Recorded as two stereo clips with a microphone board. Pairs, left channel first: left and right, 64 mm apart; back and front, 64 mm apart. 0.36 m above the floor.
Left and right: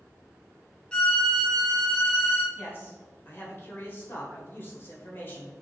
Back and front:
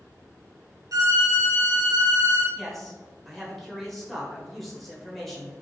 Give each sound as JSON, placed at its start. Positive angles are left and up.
{"t": 0.9, "sound": "a violin", "azimuth_deg": 15, "distance_m": 0.6}
{"t": 2.5, "sound": "a man speaking", "azimuth_deg": 95, "distance_m": 0.9}